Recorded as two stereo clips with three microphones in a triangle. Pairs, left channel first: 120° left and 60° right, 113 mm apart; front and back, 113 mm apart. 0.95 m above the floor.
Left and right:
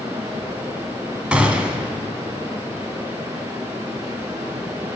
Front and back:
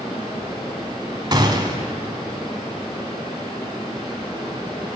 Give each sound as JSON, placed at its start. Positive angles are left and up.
{"t": 0.0, "sound": "running water", "azimuth_deg": -120, "distance_m": 7.0}
{"t": 1.3, "sound": "a gunshot", "azimuth_deg": -140, "distance_m": 1.3}